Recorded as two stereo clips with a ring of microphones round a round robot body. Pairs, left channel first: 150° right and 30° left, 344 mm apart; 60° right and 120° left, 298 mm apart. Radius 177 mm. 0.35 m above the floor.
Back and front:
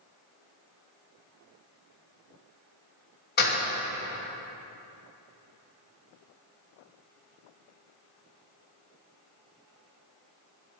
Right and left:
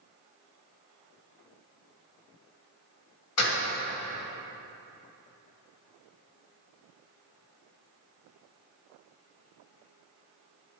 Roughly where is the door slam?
Right.